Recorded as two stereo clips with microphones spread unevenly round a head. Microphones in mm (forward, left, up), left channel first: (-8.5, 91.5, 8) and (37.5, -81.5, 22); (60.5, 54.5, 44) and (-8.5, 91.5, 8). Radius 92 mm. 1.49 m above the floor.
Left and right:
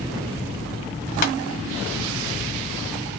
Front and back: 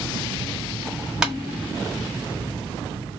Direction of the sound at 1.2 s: 55° left.